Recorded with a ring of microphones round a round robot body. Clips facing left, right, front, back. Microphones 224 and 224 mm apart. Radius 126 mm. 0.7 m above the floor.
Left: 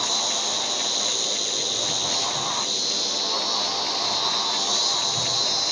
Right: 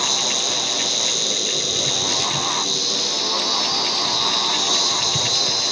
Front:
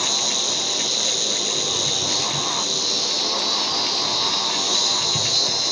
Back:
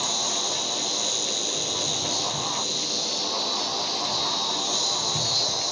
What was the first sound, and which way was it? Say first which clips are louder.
An insect: right 4 dB, front 3 dB; 75° right.